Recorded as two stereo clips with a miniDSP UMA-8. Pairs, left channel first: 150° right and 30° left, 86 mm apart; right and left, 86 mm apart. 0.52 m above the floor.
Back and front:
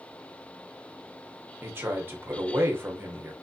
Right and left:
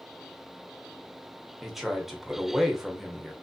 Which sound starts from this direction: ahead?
A man speaking, at 1.6 s.